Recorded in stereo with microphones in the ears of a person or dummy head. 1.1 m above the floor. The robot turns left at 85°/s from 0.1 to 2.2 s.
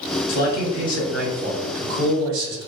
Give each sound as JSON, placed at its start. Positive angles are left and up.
{"t": 0.3, "sound": "a man speaking", "azimuth_deg": 85, "distance_m": 1.3}